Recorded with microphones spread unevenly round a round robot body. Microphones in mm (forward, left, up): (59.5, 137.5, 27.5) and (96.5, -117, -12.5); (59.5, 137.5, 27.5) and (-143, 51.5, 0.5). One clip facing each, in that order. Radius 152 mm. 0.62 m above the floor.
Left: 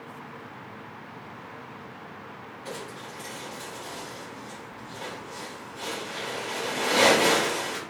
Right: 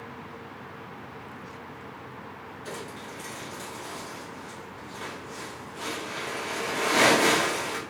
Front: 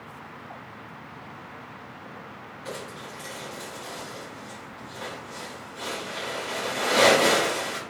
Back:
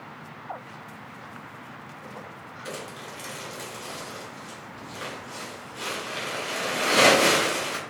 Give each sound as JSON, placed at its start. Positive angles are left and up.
{"t": 2.6, "sound": "crumpling", "azimuth_deg": -150, "distance_m": 0.8}